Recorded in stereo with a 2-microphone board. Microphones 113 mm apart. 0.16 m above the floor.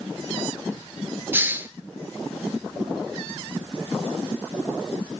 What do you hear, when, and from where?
1.3 s a hiss: 20° right (ahead or behind), 0.9 m